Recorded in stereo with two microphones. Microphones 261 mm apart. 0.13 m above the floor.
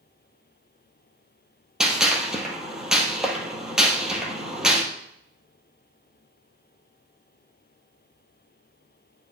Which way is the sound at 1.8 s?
Centre (ahead or behind).